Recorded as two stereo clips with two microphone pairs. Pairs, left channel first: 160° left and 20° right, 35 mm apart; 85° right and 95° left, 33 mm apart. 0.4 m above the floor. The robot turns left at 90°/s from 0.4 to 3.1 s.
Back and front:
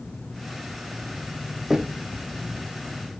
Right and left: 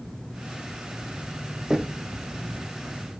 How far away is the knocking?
About 0.6 m.